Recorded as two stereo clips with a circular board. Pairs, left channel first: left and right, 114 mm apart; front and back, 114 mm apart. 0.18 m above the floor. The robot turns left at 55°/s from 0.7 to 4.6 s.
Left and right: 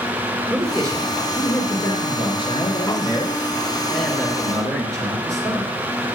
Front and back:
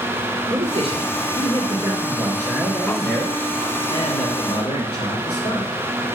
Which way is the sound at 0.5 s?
Straight behind.